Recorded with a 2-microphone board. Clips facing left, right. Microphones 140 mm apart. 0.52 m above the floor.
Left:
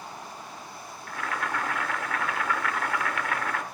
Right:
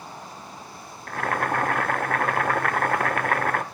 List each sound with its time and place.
1.1 s boiling: 50° right (ahead or behind), 0.9 m